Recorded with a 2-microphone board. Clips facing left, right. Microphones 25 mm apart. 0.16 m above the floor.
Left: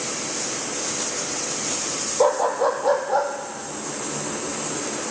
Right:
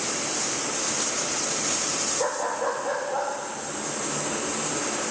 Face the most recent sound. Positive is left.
turn(degrees=70)  # may be behind; listen again after turning